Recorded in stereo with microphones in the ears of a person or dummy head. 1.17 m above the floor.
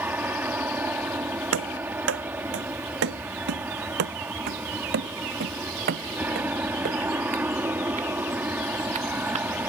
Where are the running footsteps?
75° right (ahead or behind); by 9.5 s 45° right (ahead or behind).